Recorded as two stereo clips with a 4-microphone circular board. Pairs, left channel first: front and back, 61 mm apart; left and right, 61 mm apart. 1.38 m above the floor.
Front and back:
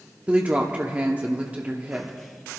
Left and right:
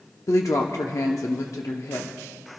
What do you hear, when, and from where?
0.3 s a woman speaking: 115° left, 0.8 m